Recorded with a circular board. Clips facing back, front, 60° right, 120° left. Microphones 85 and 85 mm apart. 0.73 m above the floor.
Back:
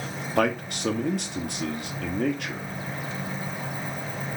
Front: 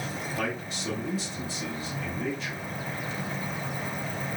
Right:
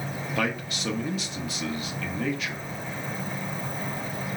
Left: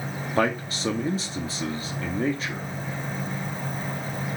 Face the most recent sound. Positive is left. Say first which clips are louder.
# back 11 dB, left 6 dB
turn(degrees=175)